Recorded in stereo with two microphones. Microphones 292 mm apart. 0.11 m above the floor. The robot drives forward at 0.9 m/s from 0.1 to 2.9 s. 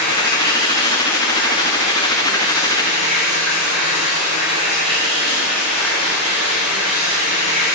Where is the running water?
80° left, 5.5 m; by 7.8 s 60° left (ahead or behind), 6 m.